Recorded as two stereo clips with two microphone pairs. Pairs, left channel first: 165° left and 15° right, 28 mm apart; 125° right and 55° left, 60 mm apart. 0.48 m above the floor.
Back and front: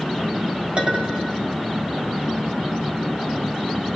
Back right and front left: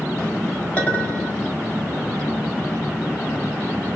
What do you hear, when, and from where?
0.8 s a clink: 60° right, 1.9 m